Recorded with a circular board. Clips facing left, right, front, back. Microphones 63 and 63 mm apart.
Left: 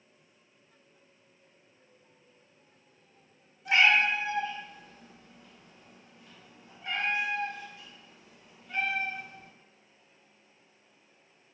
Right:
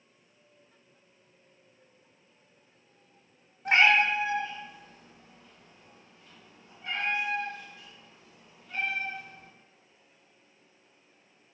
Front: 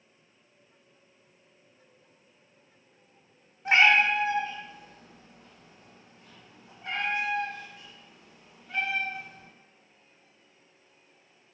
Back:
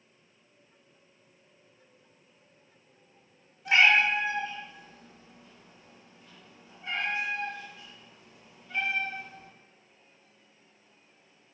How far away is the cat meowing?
About 0.6 m.